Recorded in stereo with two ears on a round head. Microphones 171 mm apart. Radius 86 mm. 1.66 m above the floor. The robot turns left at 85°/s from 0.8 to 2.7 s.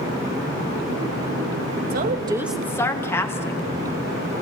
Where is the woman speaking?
125° right, 2 m; by 3.6 s 165° left, 2 m.